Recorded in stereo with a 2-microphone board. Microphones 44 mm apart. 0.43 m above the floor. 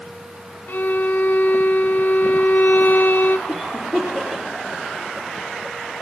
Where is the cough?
Centre (ahead or behind), 6 m.